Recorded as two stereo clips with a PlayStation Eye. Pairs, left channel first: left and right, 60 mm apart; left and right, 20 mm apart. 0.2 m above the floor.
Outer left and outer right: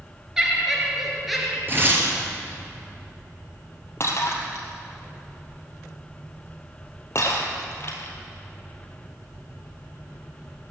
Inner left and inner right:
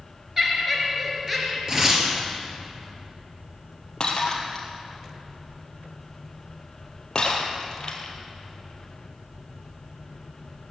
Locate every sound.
0.4 s laughter: 10° right (ahead or behind), 3 m; by 1.6 s centre (ahead or behind), 3.5 m
1.7 s tearing paper: 35° right (ahead or behind), 3 m
4.0 s breaking glass: 45° left (ahead or behind), 2.5 m